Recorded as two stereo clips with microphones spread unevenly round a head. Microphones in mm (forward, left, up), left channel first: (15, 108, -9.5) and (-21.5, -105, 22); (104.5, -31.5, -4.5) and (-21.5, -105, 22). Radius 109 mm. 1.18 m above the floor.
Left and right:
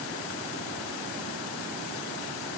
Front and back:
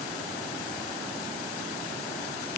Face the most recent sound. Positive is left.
No sound to turn to.